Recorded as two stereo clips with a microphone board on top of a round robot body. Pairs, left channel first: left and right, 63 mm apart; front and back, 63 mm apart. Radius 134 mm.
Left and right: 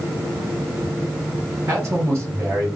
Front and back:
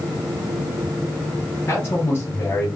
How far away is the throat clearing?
No throat clearing in this recording.